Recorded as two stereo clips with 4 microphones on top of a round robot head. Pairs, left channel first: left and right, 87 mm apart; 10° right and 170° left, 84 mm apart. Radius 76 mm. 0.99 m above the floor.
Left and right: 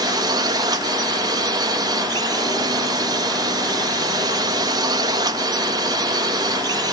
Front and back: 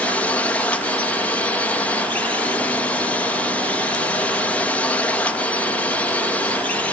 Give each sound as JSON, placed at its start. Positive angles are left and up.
{"t": 0.0, "sound": "a drone", "azimuth_deg": -80}